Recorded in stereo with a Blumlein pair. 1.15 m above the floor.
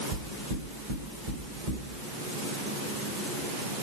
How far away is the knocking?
About 4 m.